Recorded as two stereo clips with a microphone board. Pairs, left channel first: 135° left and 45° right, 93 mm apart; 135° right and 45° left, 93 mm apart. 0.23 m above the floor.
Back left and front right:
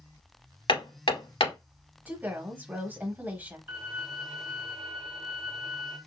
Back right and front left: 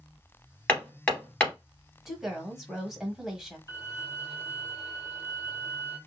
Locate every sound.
0.7 s hammering: 150° left, 1.8 m
2.0 s a woman speaking: 35° right, 1.1 m
3.7 s a violin: 20° left, 1.8 m